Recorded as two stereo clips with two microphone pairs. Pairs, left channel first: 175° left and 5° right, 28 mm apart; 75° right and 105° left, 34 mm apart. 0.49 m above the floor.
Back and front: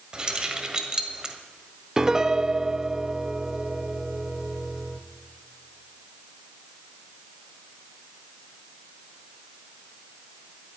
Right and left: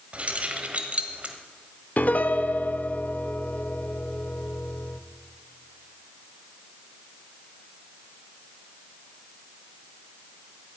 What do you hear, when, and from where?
0.1 s keys jangling: 55° left, 1.5 m
2.0 s a piano: 70° right, 0.6 m